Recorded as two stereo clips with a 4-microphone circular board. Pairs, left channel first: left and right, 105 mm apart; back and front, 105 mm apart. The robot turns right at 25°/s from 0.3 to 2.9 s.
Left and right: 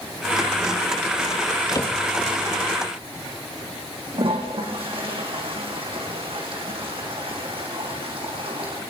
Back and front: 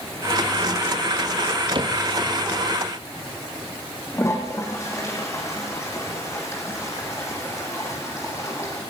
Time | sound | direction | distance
1.8 | a cupboard door | 35° left | 3.5 m
4.1 | a toilet flushing | 120° right | 7 m